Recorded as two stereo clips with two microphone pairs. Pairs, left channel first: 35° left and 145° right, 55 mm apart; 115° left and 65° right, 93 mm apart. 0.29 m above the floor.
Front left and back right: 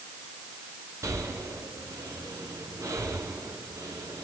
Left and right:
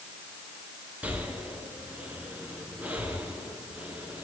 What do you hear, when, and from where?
1.0 s breathing: 135° right, 3 m